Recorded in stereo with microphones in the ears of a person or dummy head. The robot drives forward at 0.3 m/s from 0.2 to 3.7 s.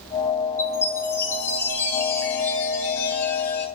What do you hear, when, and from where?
0.6 s a chime: 15° left (ahead or behind), 3.5 m; by 3.7 s 10° left (ahead or behind), 4.5 m